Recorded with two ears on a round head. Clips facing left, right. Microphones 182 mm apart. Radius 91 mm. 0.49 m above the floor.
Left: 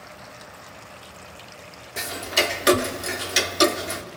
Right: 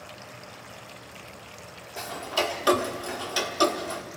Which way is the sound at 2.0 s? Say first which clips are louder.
Left 2 dB; 25° left (ahead or behind).